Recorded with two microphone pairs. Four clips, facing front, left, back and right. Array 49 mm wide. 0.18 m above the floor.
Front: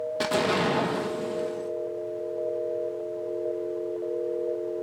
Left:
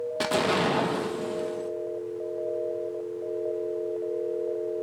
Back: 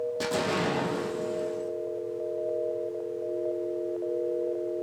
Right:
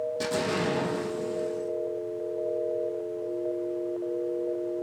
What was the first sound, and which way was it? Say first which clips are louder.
An explosion: left 6 dB, front 5 dB; 65° left.